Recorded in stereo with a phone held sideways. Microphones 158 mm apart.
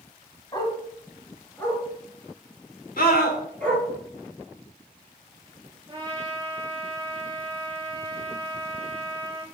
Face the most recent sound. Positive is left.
turn(degrees=-30)  # may be behind; listen again after turning